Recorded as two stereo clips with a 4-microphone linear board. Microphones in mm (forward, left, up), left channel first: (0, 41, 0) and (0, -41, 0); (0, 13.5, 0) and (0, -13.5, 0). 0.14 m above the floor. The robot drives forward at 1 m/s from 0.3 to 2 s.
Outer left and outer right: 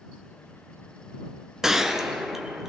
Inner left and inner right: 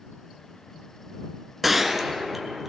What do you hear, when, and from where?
1.6 s a gunshot: 5° right (ahead or behind), 0.7 m